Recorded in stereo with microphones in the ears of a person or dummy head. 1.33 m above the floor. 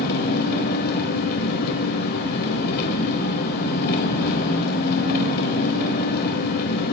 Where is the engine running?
55° left (ahead or behind), 3.5 m.